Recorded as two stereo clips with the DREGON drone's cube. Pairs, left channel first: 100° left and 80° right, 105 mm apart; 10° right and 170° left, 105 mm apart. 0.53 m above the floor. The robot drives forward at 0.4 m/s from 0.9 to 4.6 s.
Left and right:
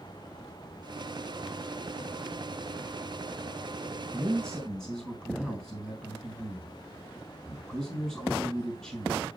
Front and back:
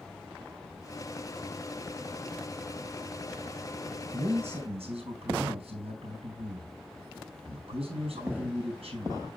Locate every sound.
4.1 s a man speaking: 175° right, 3.5 m